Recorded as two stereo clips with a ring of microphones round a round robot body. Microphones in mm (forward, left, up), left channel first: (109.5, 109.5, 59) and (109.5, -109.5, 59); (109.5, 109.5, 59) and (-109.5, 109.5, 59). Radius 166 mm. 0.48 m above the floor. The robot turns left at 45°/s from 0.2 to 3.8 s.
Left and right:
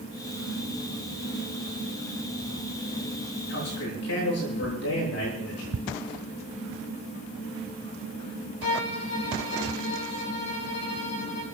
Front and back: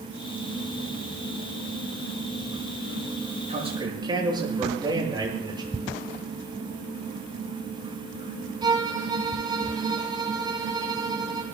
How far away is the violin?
About 6.5 m.